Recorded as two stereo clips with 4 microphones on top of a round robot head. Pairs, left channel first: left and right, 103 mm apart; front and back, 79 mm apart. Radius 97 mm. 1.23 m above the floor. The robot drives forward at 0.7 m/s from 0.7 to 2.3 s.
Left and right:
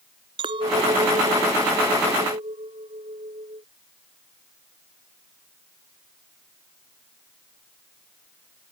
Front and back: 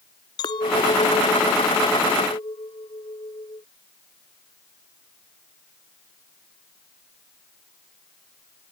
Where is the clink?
45° right.